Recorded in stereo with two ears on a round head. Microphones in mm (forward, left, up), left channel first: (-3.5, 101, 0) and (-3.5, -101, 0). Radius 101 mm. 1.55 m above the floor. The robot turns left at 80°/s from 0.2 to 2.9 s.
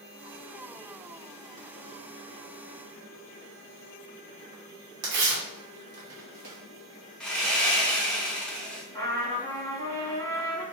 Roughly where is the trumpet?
Centre.